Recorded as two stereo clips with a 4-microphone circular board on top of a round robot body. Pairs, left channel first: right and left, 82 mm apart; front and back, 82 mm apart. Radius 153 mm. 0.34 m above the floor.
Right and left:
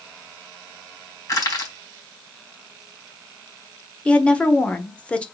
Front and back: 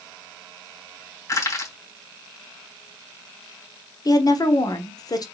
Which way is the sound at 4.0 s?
20° right.